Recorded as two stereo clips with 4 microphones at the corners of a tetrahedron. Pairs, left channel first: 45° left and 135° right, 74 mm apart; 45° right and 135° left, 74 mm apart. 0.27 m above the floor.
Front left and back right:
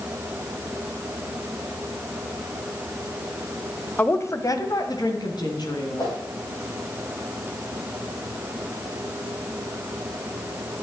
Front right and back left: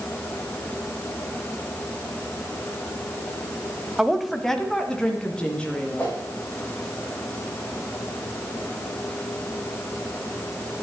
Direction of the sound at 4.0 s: 60° left.